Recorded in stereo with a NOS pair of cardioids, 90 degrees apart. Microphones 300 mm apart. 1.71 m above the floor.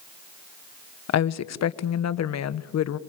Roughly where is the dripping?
No dripping in this recording.